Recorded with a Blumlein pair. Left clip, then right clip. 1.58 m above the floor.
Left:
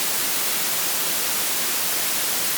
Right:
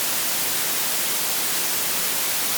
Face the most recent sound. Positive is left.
No sound to turn to.